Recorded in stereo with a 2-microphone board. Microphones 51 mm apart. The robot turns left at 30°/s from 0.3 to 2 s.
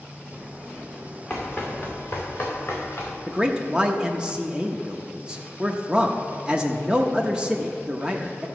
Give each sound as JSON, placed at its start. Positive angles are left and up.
{"t": 1.3, "sound": "running footsteps", "side_deg": 15, "distance_m": 2.5}
{"t": 3.3, "sound": "a man speaking", "side_deg": -20, "distance_m": 0.6}